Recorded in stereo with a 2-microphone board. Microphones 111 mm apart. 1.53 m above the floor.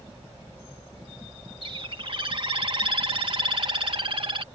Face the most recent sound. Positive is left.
turn(degrees=-50)  # may be behind; listen again after turning